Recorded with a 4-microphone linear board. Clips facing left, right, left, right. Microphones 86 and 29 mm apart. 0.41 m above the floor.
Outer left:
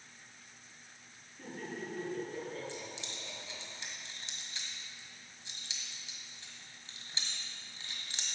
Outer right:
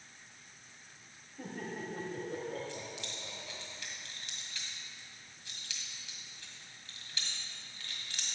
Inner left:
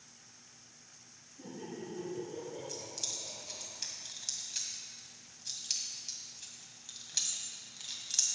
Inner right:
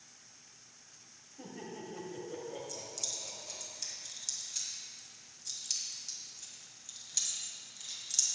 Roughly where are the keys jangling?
Left.